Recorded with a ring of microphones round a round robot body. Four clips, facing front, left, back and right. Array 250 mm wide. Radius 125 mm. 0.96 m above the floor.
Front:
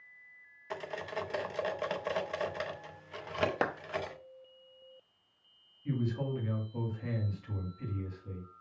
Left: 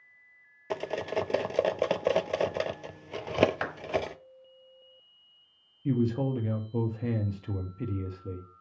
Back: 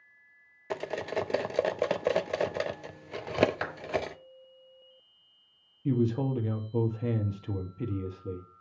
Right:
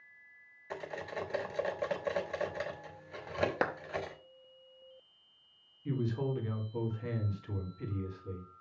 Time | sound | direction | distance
0.7 | cutlery clinking | 130° left | 0.6 m
3.6 | a clap | 40° right | 1.4 m
5.8 | a man speaking | 140° left | 1.4 m